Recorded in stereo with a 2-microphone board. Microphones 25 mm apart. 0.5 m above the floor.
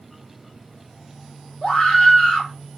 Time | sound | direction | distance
1.6 | a scream | 35° left (ahead or behind) | 1.8 m